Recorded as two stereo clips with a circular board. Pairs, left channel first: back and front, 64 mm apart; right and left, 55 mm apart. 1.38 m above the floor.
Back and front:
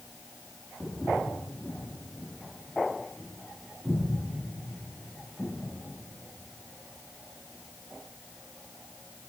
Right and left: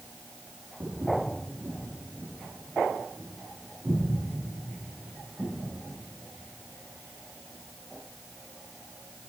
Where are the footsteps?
80° left, 3 m; by 5.5 s 60° left, 6 m.